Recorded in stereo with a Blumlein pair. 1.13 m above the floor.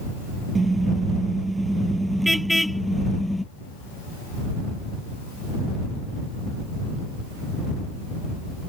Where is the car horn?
10° right; by 3.4 s 5° left.